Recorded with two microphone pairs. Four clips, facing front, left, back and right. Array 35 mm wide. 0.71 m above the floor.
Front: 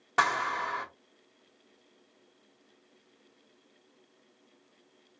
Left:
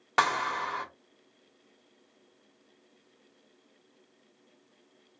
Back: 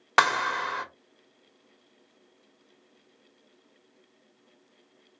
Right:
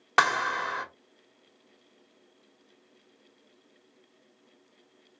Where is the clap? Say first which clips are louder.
Right 3 dB, back 4 dB; 160° right, 1.1 m.